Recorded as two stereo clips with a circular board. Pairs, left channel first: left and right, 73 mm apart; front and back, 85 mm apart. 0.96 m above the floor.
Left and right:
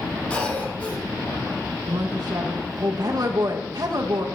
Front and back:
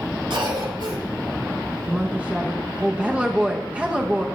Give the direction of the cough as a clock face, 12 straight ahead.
7 o'clock.